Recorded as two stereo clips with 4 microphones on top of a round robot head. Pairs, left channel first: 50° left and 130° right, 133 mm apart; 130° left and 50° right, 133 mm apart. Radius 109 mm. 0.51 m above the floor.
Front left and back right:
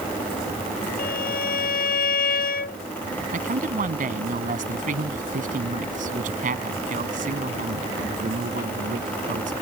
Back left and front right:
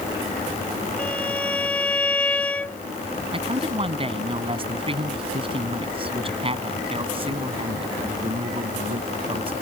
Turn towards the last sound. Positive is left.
turn(degrees=-100)